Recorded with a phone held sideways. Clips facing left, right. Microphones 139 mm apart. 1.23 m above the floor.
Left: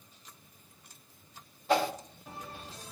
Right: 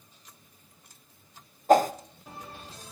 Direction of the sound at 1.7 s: 45° right (ahead or behind).